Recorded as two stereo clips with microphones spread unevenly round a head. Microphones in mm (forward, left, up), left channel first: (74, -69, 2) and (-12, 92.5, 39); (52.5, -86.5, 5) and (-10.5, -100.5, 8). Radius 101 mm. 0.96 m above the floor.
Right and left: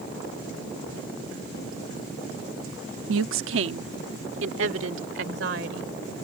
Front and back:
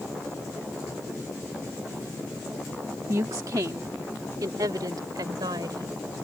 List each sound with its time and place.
3.1 s a woman speaking: 135° left; by 5.9 s 150° left